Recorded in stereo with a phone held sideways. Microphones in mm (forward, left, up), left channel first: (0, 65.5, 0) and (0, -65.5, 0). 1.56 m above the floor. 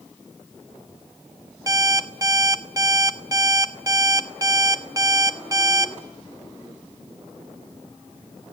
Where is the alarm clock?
25° right (ahead or behind), 1.4 m.